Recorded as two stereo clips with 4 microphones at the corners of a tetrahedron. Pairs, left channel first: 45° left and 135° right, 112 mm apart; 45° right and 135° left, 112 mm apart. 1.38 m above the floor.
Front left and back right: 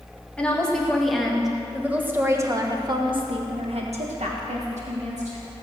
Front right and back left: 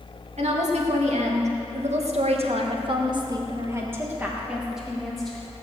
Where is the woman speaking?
125° left, 2.5 m; by 5.5 s 130° right, 2 m.